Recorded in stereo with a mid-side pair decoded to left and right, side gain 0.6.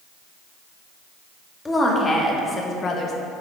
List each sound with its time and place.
1.6 s a woman speaking: 15° left, 2 m; by 3.1 s 50° left, 1.1 m